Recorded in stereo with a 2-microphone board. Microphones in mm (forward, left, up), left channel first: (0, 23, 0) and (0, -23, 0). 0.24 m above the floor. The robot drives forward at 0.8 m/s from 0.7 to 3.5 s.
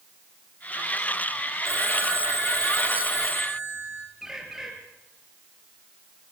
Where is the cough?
I don't hear a cough.